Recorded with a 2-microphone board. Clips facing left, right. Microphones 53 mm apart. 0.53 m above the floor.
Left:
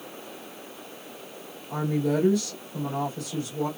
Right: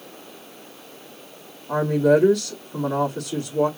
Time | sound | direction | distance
1.7 | a woman speaking | 60° right (ahead or behind) | 3 m